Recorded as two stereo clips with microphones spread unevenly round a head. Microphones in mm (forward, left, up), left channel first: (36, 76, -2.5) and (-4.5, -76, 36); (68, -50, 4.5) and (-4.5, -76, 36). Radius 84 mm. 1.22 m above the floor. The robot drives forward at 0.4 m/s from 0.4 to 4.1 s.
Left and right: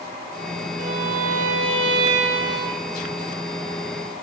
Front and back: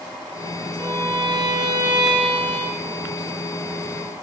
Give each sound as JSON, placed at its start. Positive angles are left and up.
{"t": 0.8, "sound": "a violin", "azimuth_deg": -115, "distance_m": 1.6}